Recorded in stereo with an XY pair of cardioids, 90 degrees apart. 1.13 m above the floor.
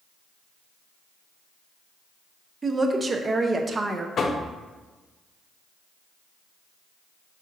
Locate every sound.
2.6 s a woman speaking: 35° right, 0.6 m
4.2 s knocking: 55° left, 0.5 m